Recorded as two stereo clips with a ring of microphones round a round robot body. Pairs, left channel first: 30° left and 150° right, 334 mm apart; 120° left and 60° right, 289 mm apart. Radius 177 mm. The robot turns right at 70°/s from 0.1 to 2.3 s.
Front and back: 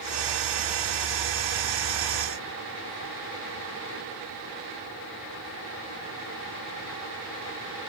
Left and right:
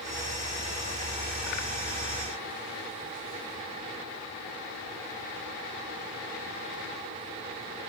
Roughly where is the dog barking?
No dog barking in this recording.